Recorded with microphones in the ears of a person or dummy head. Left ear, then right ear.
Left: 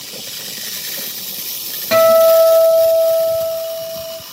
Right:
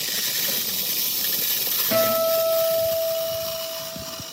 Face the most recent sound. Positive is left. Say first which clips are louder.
# left 12 dB
turn(degrees=70)  # may be behind; listen again after turning